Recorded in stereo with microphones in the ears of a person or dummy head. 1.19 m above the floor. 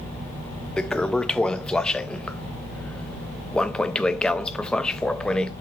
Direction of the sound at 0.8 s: 5° left (ahead or behind).